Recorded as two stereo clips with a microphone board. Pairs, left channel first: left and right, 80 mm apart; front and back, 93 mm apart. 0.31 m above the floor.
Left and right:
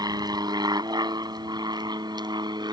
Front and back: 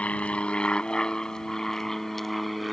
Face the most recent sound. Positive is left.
turn(degrees=-90)